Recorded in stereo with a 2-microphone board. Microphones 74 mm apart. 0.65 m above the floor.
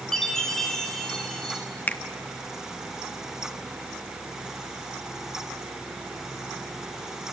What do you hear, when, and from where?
0.1 s a chime: 5° left (ahead or behind), 3.5 m
1.9 s a finger snap: 25° left (ahead or behind), 1.0 m